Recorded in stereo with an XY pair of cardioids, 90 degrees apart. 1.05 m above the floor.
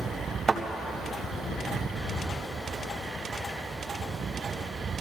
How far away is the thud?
About 2 m.